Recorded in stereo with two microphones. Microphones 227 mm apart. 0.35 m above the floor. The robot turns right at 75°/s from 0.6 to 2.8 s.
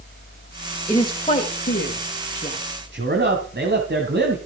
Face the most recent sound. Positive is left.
turn(degrees=-50)  # may be behind; listen again after turning